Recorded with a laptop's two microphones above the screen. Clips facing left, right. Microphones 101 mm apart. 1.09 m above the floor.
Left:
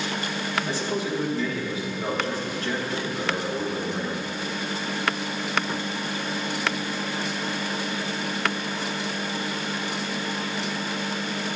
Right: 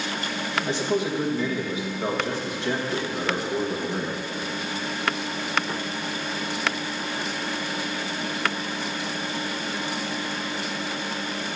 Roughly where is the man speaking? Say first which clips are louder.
Right 3 dB; right.